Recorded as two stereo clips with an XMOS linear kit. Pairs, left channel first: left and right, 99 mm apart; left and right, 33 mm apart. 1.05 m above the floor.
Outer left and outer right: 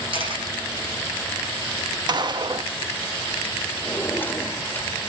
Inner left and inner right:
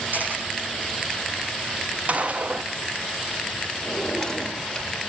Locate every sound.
0.1 s a camera shutter: 60° right (ahead or behind), 10 m
2.1 s a gunshot: 45° right (ahead or behind), 0.9 m
3.9 s a drawer: 20° left (ahead or behind), 1.4 m